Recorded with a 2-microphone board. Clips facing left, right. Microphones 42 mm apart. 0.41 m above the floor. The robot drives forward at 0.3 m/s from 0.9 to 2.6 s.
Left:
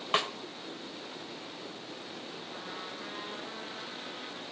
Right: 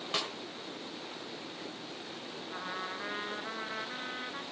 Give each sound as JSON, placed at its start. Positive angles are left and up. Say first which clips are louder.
{"t": 0.1, "sound": "a snare drum", "louder": "left 6 dB", "side_deg": 40, "distance_m": 1.2}
{"t": 2.5, "sound": "a trumpet", "louder": "right 5 dB", "side_deg": -35, "distance_m": 1.0}